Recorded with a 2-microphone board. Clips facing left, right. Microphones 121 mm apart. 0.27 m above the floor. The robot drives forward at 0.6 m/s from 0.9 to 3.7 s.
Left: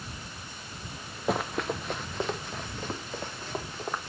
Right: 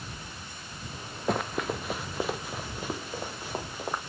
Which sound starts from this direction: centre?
Running footsteps, at 1.3 s.